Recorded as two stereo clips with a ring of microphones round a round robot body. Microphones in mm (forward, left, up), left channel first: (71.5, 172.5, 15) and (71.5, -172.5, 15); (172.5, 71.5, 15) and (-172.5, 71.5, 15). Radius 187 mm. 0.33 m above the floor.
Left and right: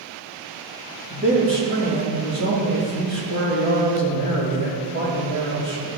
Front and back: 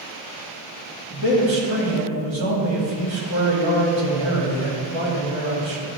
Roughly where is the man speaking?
Behind right.